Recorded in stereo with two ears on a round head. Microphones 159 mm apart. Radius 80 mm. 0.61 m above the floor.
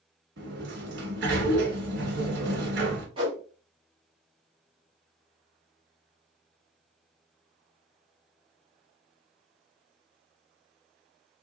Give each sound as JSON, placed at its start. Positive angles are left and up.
{"t": 0.4, "sound": "a sliding door", "side_deg": -70, "distance_m": 1.2}
{"t": 3.2, "sound": "a whoosh", "side_deg": -30, "distance_m": 1.3}